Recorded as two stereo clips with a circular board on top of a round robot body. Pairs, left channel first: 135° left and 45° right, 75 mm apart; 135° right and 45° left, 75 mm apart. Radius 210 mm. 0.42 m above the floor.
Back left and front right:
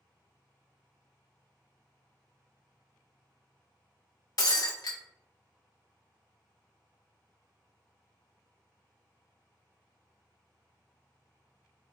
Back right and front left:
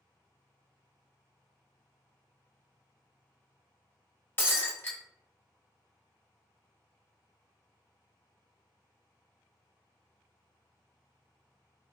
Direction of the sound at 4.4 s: 165° left.